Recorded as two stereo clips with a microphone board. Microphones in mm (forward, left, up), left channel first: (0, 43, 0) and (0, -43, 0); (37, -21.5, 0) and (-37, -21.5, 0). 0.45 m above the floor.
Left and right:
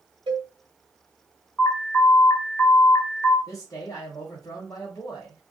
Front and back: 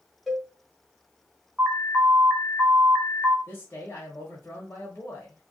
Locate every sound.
0.3 s a cowbell: 95° right, 1.0 m
1.6 s an alarm: 115° left, 0.9 m
3.5 s a man speaking: 40° left, 1.0 m